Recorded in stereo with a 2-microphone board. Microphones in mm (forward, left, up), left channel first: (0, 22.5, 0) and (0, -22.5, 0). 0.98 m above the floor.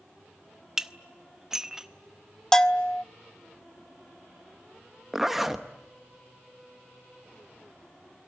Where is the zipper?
5° right (ahead or behind), 1.2 m.